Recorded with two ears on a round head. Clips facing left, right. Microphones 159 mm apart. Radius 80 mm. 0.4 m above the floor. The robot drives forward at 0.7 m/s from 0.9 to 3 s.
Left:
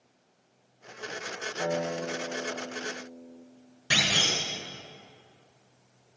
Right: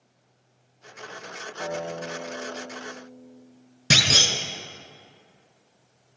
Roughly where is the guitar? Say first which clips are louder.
Left 1 dB; left.